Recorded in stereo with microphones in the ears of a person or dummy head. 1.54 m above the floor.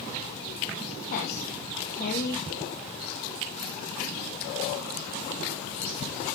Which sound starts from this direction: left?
A woman speaking, at 1.1 s.